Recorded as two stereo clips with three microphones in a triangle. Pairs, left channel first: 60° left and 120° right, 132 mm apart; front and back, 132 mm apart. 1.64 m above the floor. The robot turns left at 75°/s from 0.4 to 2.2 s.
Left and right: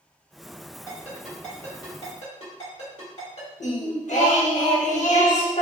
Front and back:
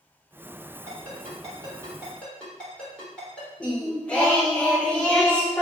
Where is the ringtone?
175° right, 1.7 m; by 3.5 s 85° left, 1.7 m.